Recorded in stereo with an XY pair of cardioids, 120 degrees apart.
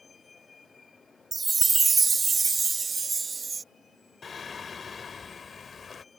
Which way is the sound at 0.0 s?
25° left.